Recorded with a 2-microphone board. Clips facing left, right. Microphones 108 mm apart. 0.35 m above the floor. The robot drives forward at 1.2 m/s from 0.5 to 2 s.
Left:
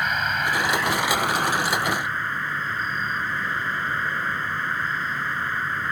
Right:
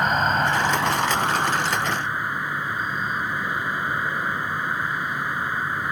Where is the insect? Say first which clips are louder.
Right 4 dB; 35° right (ahead or behind); by 5.9 s 15° right (ahead or behind).